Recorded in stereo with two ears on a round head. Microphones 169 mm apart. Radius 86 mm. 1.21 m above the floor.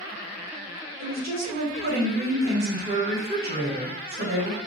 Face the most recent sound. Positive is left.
turn(degrees=-45)  # may be behind; listen again after turning